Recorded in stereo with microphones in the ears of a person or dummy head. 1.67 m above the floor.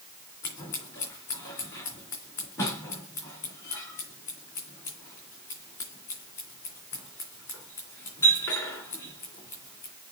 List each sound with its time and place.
0.4 s scissors: 20° left (ahead or behind), 3 m